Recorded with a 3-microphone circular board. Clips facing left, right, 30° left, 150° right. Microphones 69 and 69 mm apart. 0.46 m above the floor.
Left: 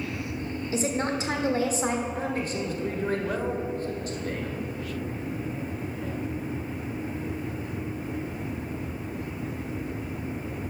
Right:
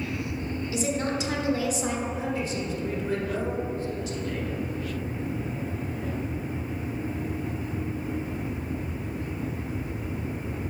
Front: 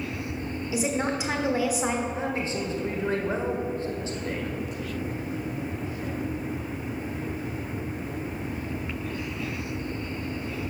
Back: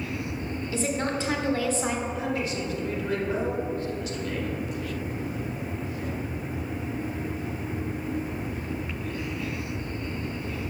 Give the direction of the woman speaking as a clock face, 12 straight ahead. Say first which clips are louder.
Left 1 dB, front 1 dB; 9 o'clock.